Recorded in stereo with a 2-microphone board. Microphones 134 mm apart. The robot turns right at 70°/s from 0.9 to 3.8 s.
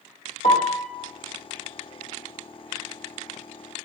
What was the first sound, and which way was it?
A piano, 65° left (ahead or behind).